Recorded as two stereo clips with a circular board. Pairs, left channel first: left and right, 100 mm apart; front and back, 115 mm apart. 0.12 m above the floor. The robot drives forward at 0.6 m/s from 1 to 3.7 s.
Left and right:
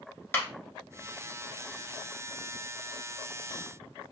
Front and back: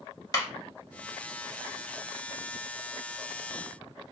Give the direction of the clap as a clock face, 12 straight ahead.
11 o'clock.